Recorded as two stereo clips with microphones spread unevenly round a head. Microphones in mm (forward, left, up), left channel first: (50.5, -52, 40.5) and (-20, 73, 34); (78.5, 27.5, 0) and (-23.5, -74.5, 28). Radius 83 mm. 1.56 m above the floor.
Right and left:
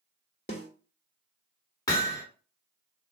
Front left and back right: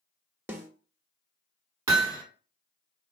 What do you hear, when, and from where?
0.5 s a snare drum: 80° right, 1.0 m
1.9 s hammering: 115° right, 1.3 m